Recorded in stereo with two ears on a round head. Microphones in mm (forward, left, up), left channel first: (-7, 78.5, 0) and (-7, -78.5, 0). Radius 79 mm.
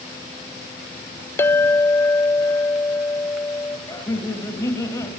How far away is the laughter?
About 2 m.